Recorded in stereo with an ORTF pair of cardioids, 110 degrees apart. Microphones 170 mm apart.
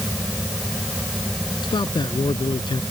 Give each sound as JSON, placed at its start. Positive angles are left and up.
{"t": 0.0, "sound": "a fan", "azimuth_deg": 0}
{"t": 1.6, "sound": "a man speaking", "azimuth_deg": 30}